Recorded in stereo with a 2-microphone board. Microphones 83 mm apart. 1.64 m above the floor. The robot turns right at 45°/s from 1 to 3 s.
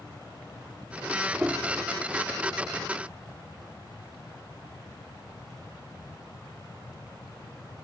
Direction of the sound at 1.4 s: 15° right (ahead or behind).